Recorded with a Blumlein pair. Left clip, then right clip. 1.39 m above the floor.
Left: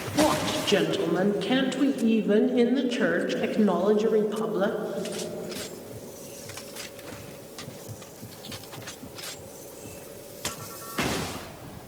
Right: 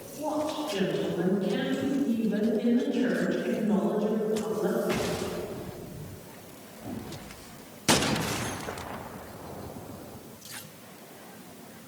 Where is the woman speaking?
45° left, 1.5 m.